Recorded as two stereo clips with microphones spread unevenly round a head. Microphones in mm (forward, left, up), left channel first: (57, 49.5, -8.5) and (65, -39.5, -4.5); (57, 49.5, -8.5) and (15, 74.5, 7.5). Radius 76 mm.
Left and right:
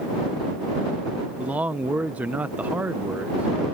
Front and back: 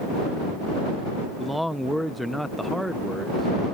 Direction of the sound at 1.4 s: 150° right.